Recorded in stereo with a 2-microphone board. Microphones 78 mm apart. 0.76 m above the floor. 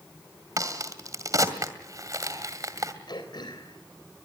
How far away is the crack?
About 2 m.